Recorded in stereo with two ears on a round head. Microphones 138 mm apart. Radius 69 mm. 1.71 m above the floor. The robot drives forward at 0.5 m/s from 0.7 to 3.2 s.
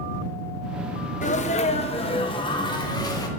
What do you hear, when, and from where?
1.2 s a sneeze: 50° left (ahead or behind), 0.8 m; by 3.3 s 25° left (ahead or behind), 1.5 m